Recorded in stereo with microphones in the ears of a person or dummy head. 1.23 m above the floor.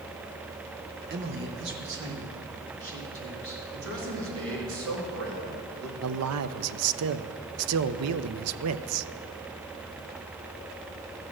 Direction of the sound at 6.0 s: 75° right (ahead or behind).